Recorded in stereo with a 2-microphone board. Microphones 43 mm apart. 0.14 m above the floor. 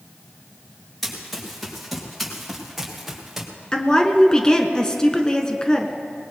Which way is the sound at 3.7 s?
15° left (ahead or behind).